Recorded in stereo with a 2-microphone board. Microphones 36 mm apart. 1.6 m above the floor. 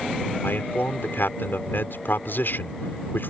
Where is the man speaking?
75° left (ahead or behind).